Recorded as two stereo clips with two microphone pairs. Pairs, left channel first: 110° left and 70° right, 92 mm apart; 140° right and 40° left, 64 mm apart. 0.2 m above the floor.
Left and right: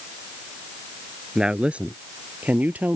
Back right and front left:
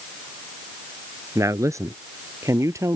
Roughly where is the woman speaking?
Ahead.